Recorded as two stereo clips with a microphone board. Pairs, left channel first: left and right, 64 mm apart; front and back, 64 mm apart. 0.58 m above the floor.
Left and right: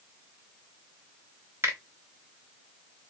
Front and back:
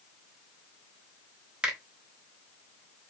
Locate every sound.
1.6 s a finger snap: 110° right, 1.2 m